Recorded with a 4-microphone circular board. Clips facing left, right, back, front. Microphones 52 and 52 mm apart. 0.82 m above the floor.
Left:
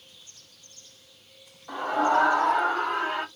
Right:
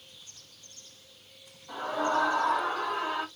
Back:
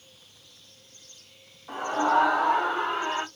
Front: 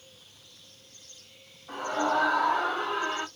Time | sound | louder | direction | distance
1.7 | a scream | left 5 dB, back 3 dB | 125° left | 1.7 m